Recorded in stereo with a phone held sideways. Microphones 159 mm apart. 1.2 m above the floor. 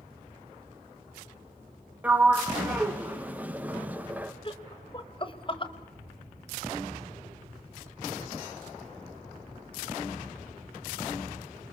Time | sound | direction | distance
2.0 | a sliding door | 10° right (ahead or behind) | 1.2 m
4.5 | laughter | 35° left (ahead or behind) | 1.6 m